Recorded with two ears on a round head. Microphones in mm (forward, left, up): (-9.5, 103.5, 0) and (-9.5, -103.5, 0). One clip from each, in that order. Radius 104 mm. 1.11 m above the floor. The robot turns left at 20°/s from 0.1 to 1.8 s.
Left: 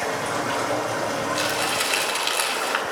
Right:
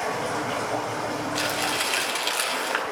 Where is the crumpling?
5° right (ahead or behind), 3.5 m; by 2.8 s 5° left (ahead or behind), 3.5 m.